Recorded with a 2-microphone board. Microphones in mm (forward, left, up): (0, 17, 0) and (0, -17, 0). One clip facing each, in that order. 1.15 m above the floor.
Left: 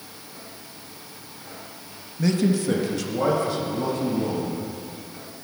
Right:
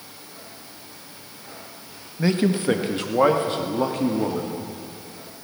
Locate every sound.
2.2 s a man speaking: 30° right (ahead or behind), 0.9 m; by 4.6 s 55° right (ahead or behind), 2.0 m